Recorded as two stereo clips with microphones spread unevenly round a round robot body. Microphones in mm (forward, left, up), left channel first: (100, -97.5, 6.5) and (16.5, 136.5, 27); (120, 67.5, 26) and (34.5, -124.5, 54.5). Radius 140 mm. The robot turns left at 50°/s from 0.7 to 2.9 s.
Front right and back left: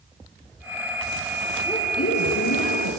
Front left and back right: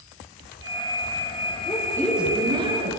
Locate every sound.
1.7 s a woman speaking: straight ahead, 8 m; by 2.9 s 60° right, 8 m